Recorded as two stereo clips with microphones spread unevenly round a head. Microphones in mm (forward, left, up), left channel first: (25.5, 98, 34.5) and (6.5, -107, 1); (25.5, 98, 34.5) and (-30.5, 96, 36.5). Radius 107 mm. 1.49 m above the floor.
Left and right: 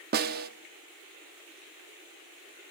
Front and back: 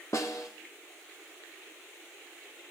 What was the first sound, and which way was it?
A snare drum, 55° right.